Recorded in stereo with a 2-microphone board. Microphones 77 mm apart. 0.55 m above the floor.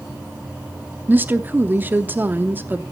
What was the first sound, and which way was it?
A woman speaking, 25° right (ahead or behind).